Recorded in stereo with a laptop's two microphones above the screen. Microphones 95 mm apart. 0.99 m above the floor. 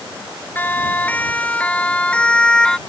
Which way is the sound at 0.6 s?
20° left (ahead or behind).